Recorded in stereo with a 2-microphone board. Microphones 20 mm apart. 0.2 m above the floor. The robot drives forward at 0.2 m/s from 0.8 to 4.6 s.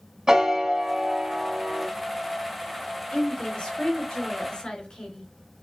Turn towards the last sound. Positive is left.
turn(degrees=55)  # may be behind; listen again after turning